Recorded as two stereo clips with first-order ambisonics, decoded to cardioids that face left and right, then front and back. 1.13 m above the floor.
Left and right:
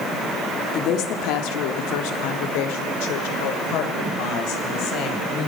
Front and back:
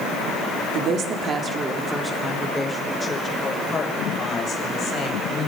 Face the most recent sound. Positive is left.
turn(degrees=60)